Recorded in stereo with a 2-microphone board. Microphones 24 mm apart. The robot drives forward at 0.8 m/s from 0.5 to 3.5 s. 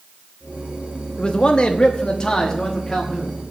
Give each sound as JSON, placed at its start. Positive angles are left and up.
{"t": 1.2, "sound": "a man speaking", "side_deg": 35, "distance_m": 1.0}